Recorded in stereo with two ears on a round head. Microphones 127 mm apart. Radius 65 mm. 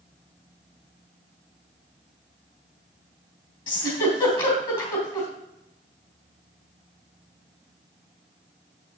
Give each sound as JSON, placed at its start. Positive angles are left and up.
{"t": 3.7, "sound": "a giggle", "side_deg": 35, "distance_m": 3.0}